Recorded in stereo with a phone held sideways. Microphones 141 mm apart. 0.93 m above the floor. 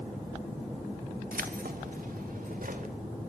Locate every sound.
1.3 s keys jangling: 80° right, 1.0 m; by 2.9 s 85° right, 2 m